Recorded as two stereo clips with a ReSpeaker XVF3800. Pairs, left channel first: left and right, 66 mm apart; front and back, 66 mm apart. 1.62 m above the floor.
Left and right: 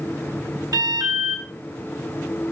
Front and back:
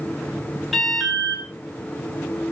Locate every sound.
0.7 s an alarm: 90° right, 10 m